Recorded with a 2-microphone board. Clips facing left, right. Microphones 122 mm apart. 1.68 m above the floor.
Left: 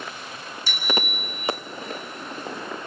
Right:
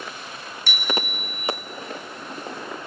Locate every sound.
0.7 s a bicycle bell: 75° right (ahead or behind), 4 m